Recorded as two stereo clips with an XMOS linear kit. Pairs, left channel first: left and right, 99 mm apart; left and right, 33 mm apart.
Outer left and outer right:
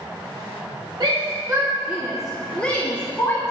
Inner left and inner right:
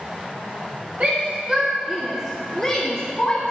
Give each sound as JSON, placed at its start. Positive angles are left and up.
{"t": 1.0, "sound": "a shout", "side_deg": -45, "distance_m": 1.1}